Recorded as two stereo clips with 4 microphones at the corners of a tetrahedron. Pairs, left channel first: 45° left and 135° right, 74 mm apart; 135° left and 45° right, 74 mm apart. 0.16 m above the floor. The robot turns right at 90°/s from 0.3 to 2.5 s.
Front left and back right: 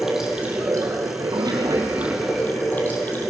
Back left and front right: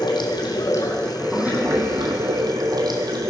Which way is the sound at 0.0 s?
140° left.